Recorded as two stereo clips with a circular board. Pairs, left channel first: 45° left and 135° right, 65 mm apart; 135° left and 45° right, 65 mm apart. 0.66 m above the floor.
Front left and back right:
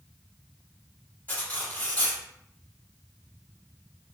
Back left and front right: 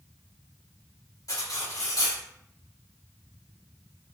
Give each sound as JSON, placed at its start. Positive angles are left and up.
{"t": 1.3, "sound": "cutlery clinking", "azimuth_deg": 110, "distance_m": 1.1}